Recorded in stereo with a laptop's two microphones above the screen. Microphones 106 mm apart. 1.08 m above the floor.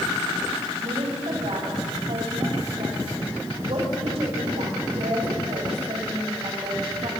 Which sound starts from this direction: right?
A woman speaking, at 0.8 s.